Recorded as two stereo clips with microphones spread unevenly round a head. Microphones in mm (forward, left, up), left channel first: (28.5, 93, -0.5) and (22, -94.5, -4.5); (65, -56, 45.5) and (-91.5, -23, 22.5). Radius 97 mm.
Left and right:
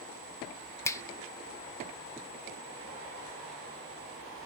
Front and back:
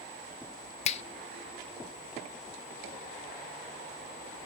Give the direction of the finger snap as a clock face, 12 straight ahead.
11 o'clock.